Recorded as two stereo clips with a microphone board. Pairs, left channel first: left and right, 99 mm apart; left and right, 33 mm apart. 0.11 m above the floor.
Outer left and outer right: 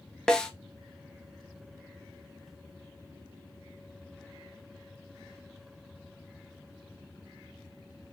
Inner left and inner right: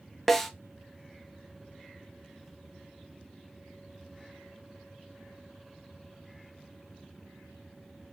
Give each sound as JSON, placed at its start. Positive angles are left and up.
{"t": 0.3, "sound": "a snare drum", "side_deg": 10, "distance_m": 0.5}